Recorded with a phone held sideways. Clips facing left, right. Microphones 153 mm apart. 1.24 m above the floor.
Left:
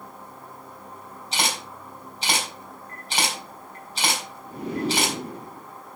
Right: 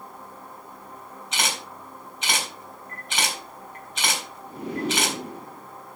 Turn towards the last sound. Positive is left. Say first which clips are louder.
# left 2 dB
turn(degrees=35)  # may be behind; listen again after turning